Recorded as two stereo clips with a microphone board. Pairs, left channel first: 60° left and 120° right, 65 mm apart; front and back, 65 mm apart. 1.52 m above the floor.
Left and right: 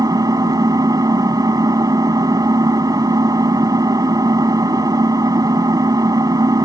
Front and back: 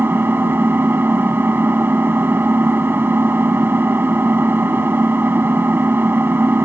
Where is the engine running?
125° right.